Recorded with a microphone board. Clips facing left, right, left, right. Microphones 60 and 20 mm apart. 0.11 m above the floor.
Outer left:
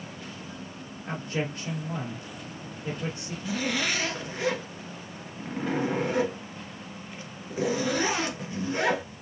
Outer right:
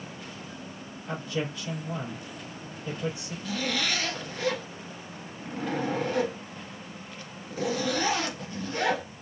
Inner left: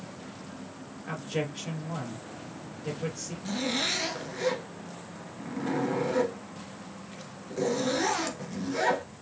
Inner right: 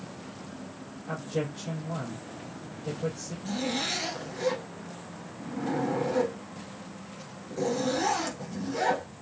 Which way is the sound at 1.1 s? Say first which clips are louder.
Even, even; 55° left (ahead or behind).